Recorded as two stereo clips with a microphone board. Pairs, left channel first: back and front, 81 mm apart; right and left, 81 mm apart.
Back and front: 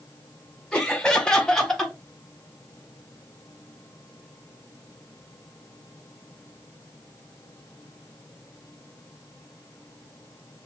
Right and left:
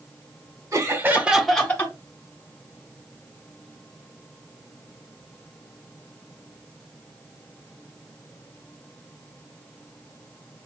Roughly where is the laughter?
Left.